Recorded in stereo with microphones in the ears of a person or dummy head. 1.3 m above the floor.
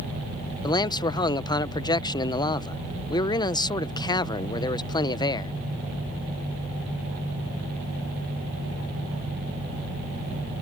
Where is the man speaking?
20° left (ahead or behind).